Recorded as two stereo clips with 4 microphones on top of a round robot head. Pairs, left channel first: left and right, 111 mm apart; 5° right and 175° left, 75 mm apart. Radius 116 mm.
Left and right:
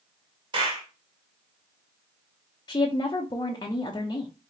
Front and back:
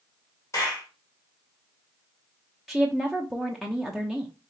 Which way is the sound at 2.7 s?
90° left.